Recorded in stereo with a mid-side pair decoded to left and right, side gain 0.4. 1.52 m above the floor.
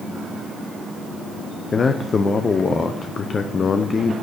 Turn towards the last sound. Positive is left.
turn(degrees=40)